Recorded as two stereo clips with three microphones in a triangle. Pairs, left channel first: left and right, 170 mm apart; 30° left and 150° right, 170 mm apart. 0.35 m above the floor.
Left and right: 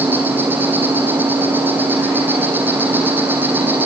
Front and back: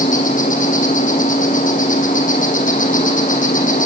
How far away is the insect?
About 4 m.